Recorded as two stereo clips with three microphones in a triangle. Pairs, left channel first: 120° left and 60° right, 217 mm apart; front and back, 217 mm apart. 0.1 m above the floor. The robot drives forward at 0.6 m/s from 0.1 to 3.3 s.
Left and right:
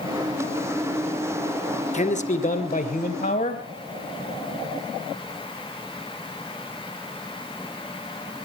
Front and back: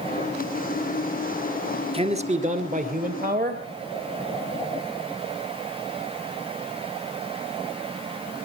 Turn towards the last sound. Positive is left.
turn(degrees=155)